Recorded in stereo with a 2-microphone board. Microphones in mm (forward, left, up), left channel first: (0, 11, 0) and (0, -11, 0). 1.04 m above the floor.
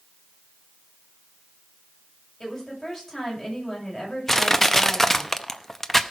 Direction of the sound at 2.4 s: 10° left (ahead or behind).